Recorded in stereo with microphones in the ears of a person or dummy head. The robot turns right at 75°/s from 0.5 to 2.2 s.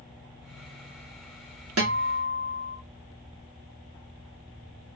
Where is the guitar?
105° right, 1.2 m; by 2.8 s 70° right, 1.2 m.